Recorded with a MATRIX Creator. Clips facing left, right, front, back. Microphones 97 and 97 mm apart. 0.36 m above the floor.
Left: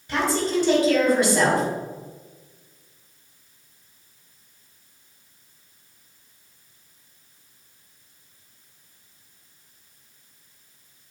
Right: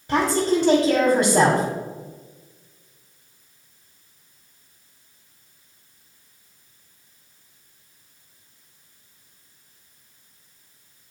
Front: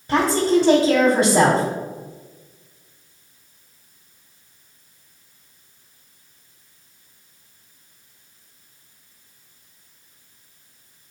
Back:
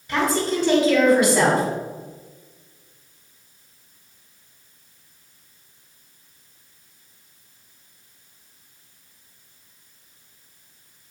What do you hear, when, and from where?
0.1 s a woman speaking: 45° right, 2 m